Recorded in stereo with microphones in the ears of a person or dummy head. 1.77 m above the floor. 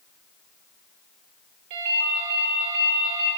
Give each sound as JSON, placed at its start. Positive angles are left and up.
{"t": 1.7, "sound": "a ringtone", "side_deg": -55, "distance_m": 2.0}